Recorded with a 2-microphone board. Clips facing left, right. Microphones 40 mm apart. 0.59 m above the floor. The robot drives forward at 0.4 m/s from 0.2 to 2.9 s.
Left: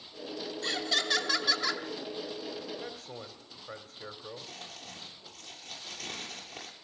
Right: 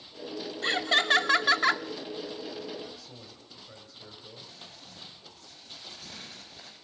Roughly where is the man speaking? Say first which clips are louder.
Left 2 dB; left.